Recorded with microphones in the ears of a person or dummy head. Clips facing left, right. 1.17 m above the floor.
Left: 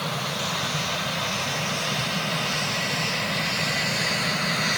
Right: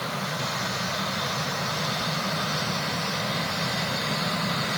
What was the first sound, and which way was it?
Only background noise.